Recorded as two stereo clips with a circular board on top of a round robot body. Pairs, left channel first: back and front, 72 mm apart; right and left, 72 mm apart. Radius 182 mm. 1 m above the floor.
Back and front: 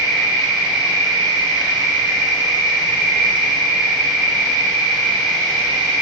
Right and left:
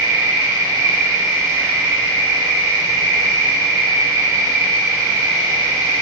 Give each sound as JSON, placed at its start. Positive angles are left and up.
{"t": 0.0, "sound": "an insect", "azimuth_deg": 135, "distance_m": 4.0}